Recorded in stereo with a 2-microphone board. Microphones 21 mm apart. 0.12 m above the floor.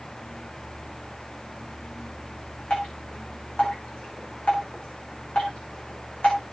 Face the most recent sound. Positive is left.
turn(degrees=70)  # may be behind; listen again after turning